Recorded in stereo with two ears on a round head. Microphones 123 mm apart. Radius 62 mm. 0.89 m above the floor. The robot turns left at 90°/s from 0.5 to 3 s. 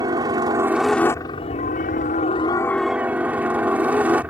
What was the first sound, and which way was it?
A helicopter, 145° right.